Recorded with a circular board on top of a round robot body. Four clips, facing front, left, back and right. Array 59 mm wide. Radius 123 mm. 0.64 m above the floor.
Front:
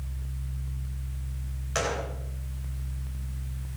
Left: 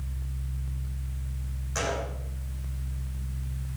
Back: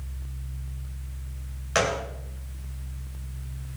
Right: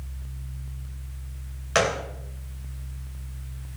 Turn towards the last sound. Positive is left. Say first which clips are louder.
# right 7 dB, back 5 dB
turn(degrees=-110)